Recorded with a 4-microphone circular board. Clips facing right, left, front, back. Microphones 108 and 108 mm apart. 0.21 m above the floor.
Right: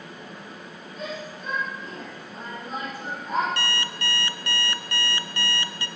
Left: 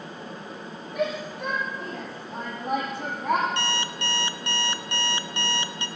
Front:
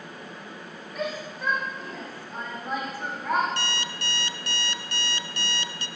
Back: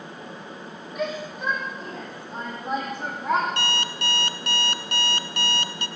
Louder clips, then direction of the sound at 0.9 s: Left 7 dB, back 3 dB; 95° left.